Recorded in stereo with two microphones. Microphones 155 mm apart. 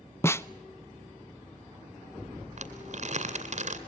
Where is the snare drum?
20° left (ahead or behind), 0.5 m.